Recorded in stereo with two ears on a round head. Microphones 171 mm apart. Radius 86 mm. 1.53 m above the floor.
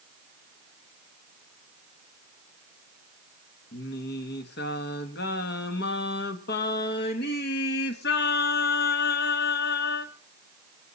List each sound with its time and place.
3.7 s singing: 60° left (ahead or behind), 1.6 m